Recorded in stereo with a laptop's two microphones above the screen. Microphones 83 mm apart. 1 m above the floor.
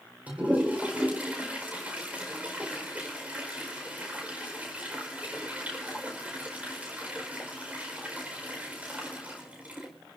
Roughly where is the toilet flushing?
Centre.